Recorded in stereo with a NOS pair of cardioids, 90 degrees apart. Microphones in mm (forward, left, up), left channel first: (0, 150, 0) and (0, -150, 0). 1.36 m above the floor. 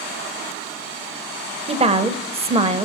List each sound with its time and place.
1.7 s a woman speaking: 20° right, 0.7 m